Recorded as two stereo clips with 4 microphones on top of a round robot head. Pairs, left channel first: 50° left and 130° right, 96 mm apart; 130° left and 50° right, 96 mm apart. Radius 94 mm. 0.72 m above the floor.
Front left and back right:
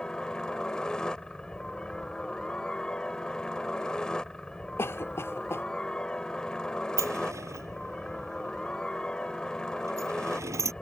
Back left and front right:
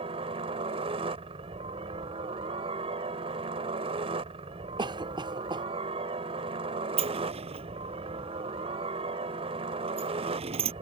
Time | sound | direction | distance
0.0 | a helicopter | 30° right | ?
4.8 | a cough | 15° right | ?
7.0 | a sliding door | 70° right | ?